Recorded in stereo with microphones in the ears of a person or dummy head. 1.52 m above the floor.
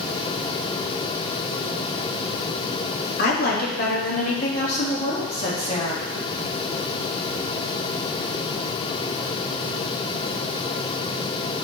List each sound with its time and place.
3.2 s a woman speaking: 55° left (ahead or behind), 2.5 m; by 6.0 s 35° left (ahead or behind), 3.5 m